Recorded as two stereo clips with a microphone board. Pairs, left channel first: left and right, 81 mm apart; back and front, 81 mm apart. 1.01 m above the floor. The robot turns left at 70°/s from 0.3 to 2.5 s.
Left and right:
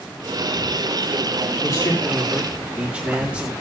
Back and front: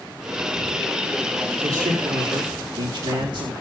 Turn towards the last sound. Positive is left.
turn(degrees=-15)